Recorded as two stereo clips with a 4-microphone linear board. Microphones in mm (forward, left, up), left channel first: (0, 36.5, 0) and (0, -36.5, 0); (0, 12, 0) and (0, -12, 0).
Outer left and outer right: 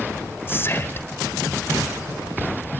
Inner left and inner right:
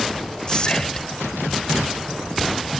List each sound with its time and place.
0.5 s whispering: 35° left (ahead or behind), 1.6 m